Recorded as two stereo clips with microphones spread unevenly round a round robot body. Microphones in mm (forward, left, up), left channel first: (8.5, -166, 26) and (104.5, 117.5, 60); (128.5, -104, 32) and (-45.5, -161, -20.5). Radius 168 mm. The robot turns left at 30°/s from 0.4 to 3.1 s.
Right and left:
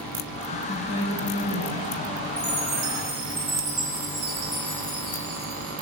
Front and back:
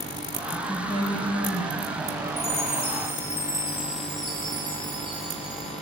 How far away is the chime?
About 3 m.